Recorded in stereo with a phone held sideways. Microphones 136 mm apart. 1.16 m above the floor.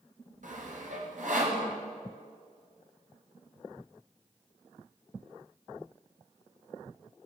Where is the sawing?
70° right (ahead or behind), 7.5 m.